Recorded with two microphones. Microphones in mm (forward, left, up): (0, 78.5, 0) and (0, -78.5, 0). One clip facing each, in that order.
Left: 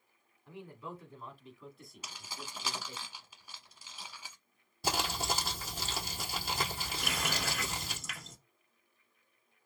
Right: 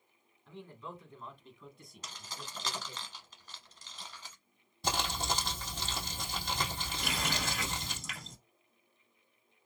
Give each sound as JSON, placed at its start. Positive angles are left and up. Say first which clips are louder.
{"t": 0.5, "sound": "a man speaking", "louder": "left 1 dB", "side_deg": 10, "distance_m": 1.5}
{"t": 2.0, "sound": "keys jangling", "louder": "even", "side_deg": 10, "distance_m": 0.8}
{"t": 4.8, "sound": "crumpling", "louder": "even", "side_deg": 5, "distance_m": 1.8}
{"t": 7.0, "sound": "a running tap", "louder": "right 1 dB", "side_deg": 0, "distance_m": 2.0}